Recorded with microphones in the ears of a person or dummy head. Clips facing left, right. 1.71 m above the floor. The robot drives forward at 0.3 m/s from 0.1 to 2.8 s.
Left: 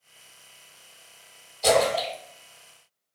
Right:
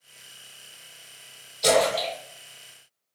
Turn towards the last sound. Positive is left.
turn(degrees=-15)  # may be behind; listen again after turning